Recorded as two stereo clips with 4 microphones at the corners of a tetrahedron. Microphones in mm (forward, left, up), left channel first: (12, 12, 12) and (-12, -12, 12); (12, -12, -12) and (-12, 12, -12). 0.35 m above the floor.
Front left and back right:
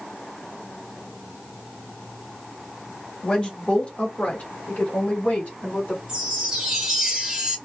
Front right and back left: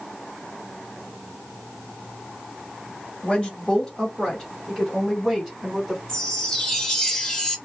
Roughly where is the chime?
Right.